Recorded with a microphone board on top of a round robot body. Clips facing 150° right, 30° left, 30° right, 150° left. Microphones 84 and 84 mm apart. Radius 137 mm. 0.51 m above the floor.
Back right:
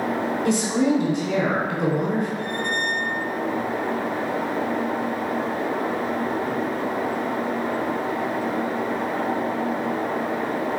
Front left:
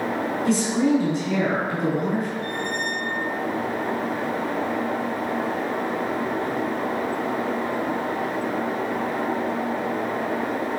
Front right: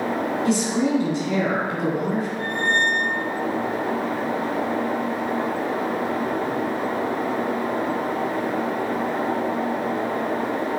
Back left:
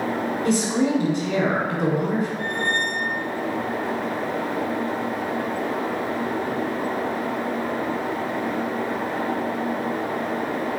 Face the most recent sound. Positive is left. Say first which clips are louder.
# back right 1 dB, front right 2 dB
turn(degrees=-140)